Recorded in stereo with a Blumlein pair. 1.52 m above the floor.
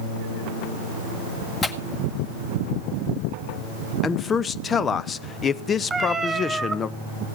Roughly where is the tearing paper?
Ahead.